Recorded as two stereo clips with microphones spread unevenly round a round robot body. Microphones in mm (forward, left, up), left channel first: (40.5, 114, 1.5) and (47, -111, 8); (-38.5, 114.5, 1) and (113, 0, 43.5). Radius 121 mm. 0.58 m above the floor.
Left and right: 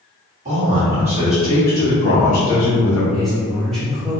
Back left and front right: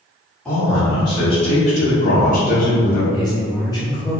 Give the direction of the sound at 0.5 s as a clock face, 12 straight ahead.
5 o'clock.